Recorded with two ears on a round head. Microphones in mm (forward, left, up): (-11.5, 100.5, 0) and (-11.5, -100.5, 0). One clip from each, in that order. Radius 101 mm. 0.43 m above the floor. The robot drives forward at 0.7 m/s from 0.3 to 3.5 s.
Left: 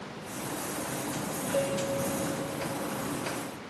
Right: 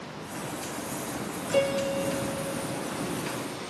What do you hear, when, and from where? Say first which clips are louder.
1.5 s a piano: right 5 dB; 45° right (ahead or behind), 0.6 m; by 2.9 s 20° right (ahead or behind), 1.1 m